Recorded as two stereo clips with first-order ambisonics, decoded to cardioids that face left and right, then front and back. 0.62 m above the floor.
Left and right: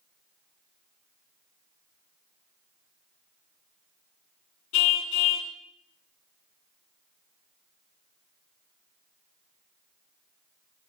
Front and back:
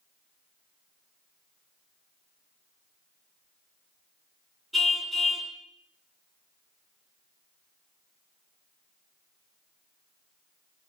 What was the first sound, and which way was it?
A car horn, 95° left.